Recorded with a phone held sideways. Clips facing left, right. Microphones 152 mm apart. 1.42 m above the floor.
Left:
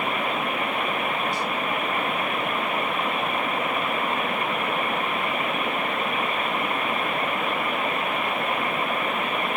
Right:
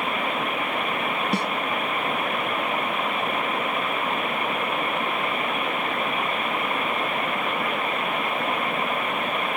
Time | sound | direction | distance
1.3 | a snare drum | 65° right (ahead or behind) | 0.7 m